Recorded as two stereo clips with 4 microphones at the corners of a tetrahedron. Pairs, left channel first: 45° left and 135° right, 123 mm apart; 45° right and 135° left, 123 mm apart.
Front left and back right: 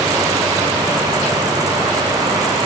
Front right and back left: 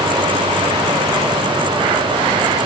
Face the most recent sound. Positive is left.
No sound to turn to.